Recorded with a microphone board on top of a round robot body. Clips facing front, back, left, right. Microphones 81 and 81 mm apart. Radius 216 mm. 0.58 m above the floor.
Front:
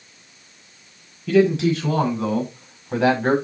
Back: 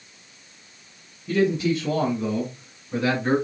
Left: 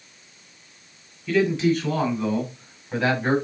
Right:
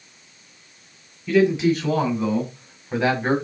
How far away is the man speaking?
About 5.5 m.